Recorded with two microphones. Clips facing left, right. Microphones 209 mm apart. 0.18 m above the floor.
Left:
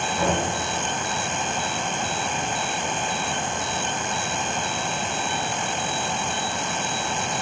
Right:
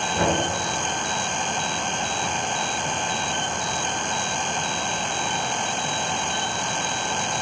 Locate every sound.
0.1 s knocking: 55° right (ahead or behind), 2.5 m